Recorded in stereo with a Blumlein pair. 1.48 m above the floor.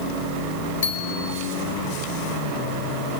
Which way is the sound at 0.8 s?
60° left.